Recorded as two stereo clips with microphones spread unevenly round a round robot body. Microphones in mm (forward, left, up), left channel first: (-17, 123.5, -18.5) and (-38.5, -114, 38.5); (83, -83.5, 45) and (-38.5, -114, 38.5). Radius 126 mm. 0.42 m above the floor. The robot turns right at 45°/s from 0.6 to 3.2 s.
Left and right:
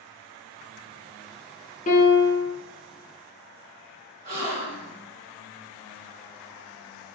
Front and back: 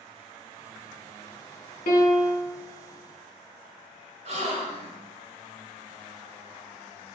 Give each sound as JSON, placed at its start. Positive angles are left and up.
{"t": 1.9, "sound": "a piano", "azimuth_deg": 20, "distance_m": 0.6}
{"t": 4.2, "sound": "a gasp", "azimuth_deg": -150, "distance_m": 1.2}